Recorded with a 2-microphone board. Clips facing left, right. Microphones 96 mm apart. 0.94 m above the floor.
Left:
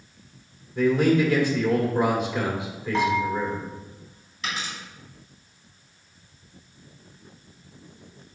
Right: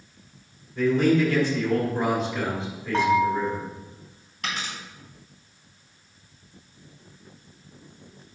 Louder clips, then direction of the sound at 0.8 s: Even; 15° left (ahead or behind).